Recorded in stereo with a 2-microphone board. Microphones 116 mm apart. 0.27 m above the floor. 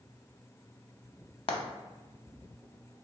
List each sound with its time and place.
1.5 s frying: 55° left (ahead or behind), 0.6 m